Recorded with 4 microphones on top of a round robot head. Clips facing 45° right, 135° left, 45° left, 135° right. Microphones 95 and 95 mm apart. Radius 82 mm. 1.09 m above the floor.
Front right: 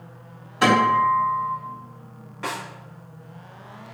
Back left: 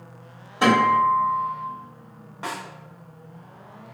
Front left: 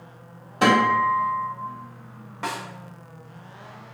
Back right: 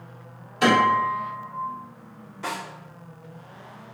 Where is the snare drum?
70° left, 1.3 m.